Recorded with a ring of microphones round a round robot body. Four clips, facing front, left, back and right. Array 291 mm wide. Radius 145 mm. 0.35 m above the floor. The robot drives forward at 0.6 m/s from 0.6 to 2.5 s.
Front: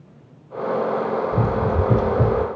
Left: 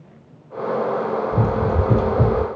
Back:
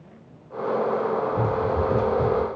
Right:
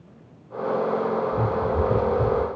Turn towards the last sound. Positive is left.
turn(degrees=75)